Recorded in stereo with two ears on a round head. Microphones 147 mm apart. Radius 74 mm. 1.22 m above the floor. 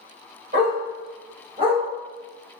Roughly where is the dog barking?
Right.